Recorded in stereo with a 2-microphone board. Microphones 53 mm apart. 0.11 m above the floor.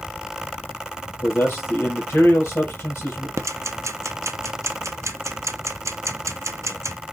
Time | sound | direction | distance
1.2 | a man speaking | 45° left (ahead or behind) | 2.5 m
3.4 | ticking | 70° right (ahead or behind) | 0.5 m